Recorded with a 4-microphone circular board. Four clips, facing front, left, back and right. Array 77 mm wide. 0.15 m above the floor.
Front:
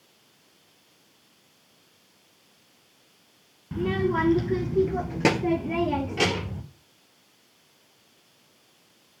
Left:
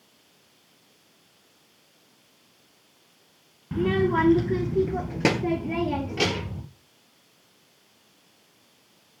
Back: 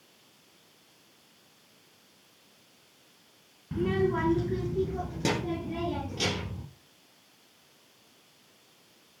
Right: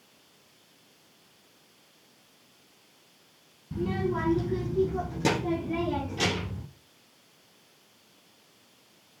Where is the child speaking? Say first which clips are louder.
Left 7 dB, front 2 dB; 80° left, 1.1 m; by 6.6 s 30° left, 2.5 m.